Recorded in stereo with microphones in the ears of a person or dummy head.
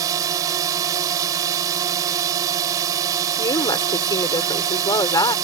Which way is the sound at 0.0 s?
20° right (ahead or behind).